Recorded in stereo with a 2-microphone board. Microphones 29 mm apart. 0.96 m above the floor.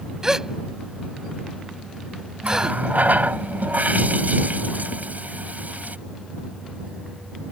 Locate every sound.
0.2 s a gasp: 20° right (ahead or behind)
2.4 s a running tap: 75° right (ahead or behind)